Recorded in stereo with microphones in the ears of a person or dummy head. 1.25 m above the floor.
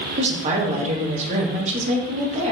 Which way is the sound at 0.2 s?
40° right (ahead or behind).